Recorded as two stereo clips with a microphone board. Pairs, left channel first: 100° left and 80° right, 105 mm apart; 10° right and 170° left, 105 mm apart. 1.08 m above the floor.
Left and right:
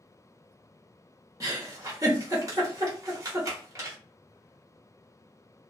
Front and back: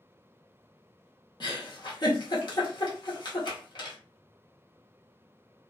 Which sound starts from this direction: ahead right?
A giggle, at 1.4 s.